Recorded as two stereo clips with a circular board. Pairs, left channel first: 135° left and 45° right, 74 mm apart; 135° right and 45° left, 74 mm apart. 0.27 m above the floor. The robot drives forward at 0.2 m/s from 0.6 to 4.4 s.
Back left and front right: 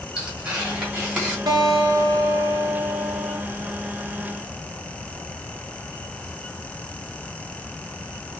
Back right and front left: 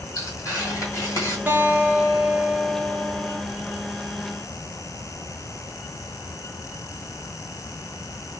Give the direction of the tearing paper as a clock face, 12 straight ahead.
4 o'clock.